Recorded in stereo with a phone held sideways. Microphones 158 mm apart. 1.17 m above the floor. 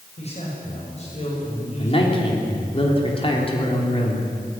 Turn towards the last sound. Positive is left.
turn(degrees=35)  # may be behind; listen again after turning